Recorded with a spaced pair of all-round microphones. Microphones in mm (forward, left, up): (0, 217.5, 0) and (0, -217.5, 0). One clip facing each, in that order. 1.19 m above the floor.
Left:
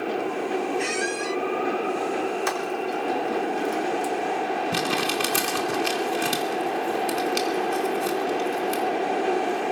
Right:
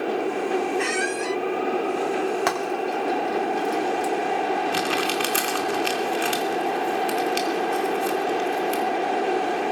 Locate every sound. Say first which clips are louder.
0.8 s a squeak: right 2 dB; 70° right (ahead or behind), 0.5 m
2.5 s frying: right 2 dB; 75° right (ahead or behind), 3.5 m
4.7 s crumpling: right 1 dB; 55° left (ahead or behind), 3 m